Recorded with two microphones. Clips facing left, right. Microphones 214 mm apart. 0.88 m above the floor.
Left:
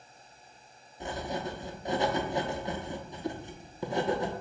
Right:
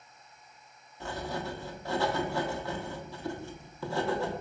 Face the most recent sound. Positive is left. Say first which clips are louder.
# left 1 dB
turn(degrees=20)  # may be behind; listen again after turning